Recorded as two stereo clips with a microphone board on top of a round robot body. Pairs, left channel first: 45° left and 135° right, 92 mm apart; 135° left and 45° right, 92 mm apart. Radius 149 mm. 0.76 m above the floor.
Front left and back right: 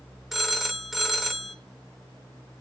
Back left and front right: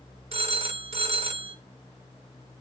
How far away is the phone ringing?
About 1.6 m.